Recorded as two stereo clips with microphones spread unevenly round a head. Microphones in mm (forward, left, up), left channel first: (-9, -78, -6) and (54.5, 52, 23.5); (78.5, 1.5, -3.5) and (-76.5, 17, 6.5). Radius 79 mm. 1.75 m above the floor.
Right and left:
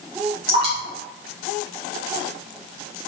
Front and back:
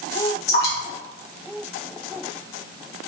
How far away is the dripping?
About 1.8 m.